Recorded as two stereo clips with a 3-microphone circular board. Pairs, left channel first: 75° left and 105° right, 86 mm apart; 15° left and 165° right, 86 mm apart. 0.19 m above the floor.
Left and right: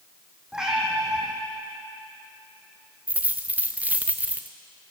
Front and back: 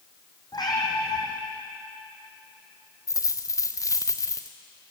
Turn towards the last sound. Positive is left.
turn(degrees=-35)